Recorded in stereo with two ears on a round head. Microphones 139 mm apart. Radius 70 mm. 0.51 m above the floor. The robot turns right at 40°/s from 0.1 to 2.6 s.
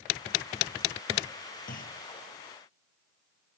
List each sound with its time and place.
1.7 s a clunk: 55° left (ahead or behind); by 2.0 s 65° left (ahead or behind)